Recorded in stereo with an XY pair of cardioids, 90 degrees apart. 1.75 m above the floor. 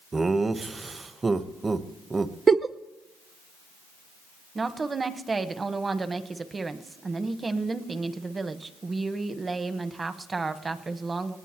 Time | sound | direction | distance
0.1 | laughter | 25° right | 1.1 m
2.5 | a giggle | 40° right | 0.7 m
4.5 | a woman speaking | 35° right | 1.3 m